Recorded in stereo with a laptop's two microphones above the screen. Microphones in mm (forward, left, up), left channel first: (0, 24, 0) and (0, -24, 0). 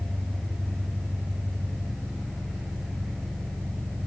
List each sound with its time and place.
0.0 s an engine running: 5° right (ahead or behind), 3 m